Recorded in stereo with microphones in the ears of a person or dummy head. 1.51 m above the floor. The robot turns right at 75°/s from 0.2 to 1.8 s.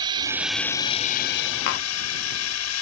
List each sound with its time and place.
0.0 s a drone: 25° right; by 2.8 s 95° left
1.7 s tapping: 55° left (ahead or behind); by 1.9 s 50° left (ahead or behind)